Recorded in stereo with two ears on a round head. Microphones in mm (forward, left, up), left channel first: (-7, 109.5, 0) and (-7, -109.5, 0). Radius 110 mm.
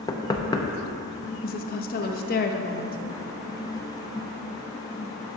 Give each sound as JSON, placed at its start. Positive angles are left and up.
{"t": 0.1, "sound": "knocking", "side_deg": 15, "distance_m": 0.6}
{"t": 1.4, "sound": "a woman speaking", "side_deg": 40, "distance_m": 0.7}